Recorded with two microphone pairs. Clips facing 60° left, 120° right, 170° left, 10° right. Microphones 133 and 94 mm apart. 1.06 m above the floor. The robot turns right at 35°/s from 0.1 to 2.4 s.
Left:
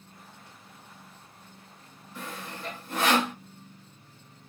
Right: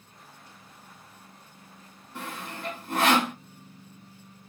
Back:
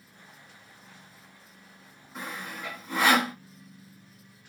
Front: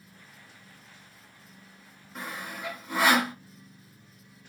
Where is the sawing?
100° right, 1.4 m; by 3.4 s 90° right, 1.4 m.